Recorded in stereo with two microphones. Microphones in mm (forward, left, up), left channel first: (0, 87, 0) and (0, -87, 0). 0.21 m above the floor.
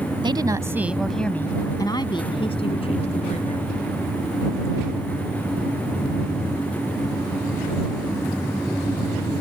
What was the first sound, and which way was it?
A woman speaking, 25° right (ahead or behind).